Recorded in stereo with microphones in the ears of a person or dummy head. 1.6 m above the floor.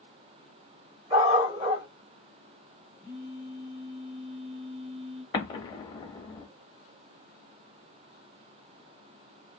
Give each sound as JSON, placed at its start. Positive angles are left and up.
{"t": 1.1, "sound": "a dog barking", "side_deg": -25, "distance_m": 2.0}
{"t": 3.0, "sound": "a phone buzzing", "side_deg": -25, "distance_m": 1.1}
{"t": 5.3, "sound": "an explosion", "side_deg": 35, "distance_m": 0.7}